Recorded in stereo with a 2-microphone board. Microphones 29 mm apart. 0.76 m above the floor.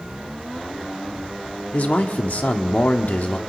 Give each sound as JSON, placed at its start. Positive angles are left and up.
{"t": 1.7, "sound": "a man speaking", "side_deg": 60, "distance_m": 1.8}